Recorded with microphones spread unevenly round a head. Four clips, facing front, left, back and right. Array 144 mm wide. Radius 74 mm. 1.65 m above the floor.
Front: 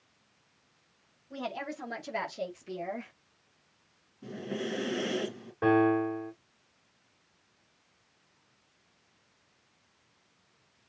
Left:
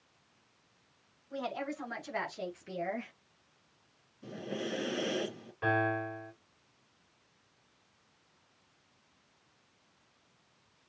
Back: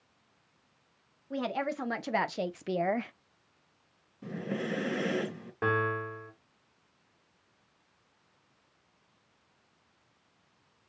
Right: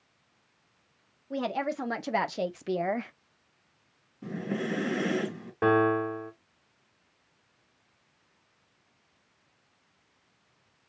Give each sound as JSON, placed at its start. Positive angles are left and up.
{"t": 1.3, "sound": "a woman speaking", "azimuth_deg": -115, "distance_m": 1.9}
{"t": 4.2, "sound": "breathing", "azimuth_deg": -100, "distance_m": 4.0}
{"t": 5.6, "sound": "a piano", "azimuth_deg": -90, "distance_m": 2.5}